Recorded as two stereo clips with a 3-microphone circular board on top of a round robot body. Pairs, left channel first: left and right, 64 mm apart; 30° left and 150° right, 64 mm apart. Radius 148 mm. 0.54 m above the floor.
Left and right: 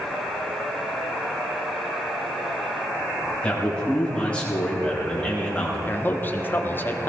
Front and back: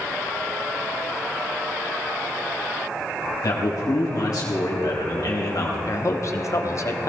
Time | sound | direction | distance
3.4 | a man speaking | 20° left | 4 m
5.9 | a man speaking | 40° left | 1.5 m